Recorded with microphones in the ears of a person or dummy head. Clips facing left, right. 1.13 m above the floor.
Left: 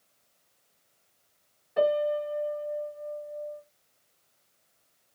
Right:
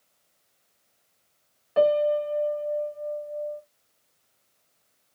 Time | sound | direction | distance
1.8 | a piano | 70° right (ahead or behind) | 1.0 m